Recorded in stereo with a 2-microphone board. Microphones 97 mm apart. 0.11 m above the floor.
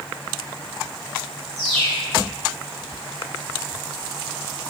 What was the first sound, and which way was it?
A bird, 70° right (ahead or behind).